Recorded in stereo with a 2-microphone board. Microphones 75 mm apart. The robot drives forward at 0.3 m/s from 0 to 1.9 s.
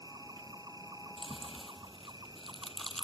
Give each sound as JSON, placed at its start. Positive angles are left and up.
{"t": 0.0, "sound": "an insect", "side_deg": -60}
{"t": 1.2, "sound": "chewing", "side_deg": 5}